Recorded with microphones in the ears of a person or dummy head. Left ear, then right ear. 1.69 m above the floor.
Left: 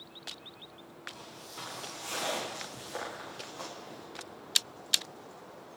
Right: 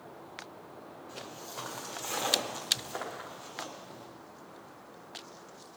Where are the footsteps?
30° right (ahead or behind), 4 m; by 4.1 s 5° right (ahead or behind), 4.5 m.